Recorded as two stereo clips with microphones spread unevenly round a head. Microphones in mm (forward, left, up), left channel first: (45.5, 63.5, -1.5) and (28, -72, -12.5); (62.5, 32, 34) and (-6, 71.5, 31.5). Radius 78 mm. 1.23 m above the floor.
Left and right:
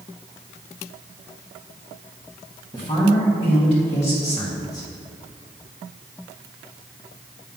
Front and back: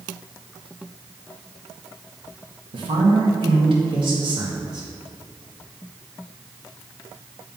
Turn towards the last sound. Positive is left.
turn(degrees=135)